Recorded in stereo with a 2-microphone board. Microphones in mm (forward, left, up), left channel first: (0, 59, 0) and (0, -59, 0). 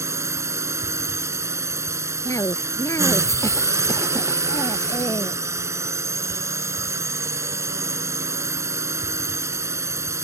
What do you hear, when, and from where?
0.0 s a drone: 25° right (ahead or behind)
2.2 s a cough: 25° left (ahead or behind)